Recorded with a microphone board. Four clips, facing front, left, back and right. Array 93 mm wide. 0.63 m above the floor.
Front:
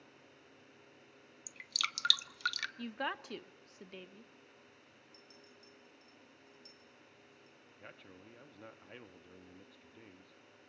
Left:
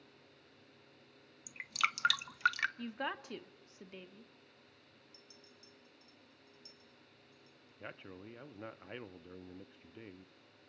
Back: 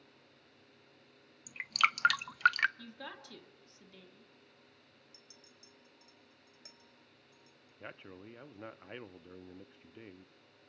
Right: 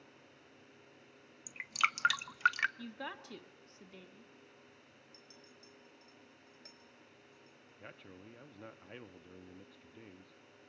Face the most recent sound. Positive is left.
turn(degrees=140)